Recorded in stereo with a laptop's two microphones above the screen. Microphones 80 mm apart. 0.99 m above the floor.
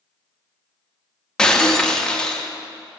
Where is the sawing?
I don't hear sawing.